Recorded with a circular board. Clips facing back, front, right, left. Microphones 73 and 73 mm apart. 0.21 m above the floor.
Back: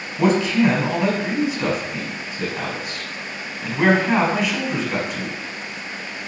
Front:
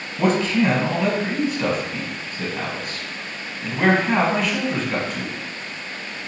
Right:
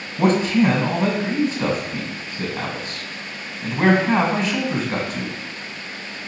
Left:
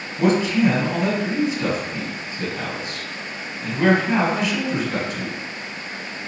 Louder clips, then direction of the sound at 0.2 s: Back 2 dB, right 1 dB; 95° right.